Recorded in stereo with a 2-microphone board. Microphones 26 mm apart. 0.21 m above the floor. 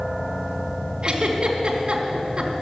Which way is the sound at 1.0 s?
40° right (ahead or behind).